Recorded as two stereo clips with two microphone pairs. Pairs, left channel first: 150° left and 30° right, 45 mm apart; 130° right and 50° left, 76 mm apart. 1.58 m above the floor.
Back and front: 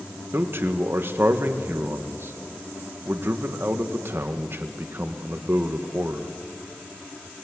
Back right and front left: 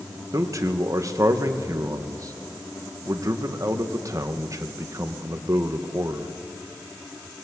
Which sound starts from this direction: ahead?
A man speaking, at 0.3 s.